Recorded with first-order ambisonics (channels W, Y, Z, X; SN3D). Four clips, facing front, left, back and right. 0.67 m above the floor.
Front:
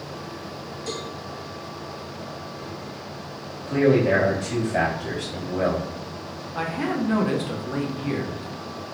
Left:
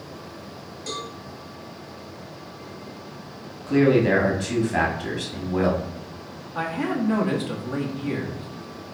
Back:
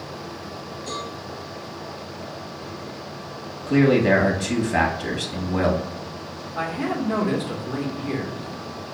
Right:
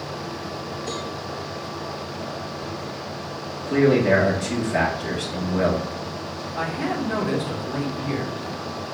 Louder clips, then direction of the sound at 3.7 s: Right 1 dB, back 2 dB; 175° left.